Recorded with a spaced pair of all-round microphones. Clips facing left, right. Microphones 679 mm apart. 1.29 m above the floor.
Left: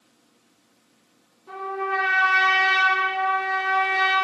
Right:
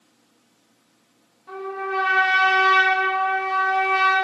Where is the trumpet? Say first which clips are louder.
Right 1 dB; 15° right (ahead or behind), 0.8 m.